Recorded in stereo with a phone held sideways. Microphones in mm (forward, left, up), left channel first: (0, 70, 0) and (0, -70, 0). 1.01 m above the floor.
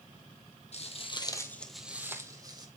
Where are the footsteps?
50° left (ahead or behind), 1.5 m; by 2.7 s 30° right (ahead or behind), 2 m.